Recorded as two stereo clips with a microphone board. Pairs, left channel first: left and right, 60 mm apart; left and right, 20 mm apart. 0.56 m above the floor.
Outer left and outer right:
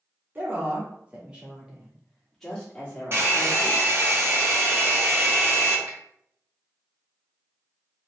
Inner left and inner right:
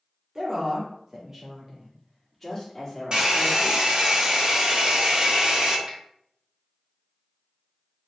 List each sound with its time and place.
0.3 s a woman speaking: 35° right (ahead or behind), 1.6 m; by 3.8 s 35° left (ahead or behind), 1.4 m
3.1 s a hair dryer: 40° right (ahead or behind), 1.9 m
5.9 s a finger snap: 35° right (ahead or behind), 1.5 m